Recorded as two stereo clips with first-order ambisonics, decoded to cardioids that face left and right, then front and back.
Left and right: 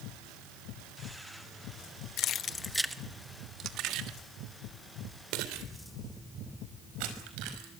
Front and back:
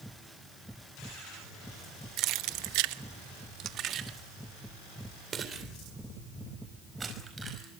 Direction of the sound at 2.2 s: 135° left.